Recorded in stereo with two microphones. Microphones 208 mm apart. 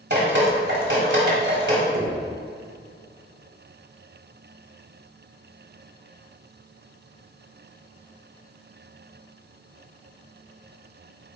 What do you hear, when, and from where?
0.1 s dripping: 65° right (ahead or behind), 2.5 m
1.9 s knocking: 55° right (ahead or behind), 1.8 m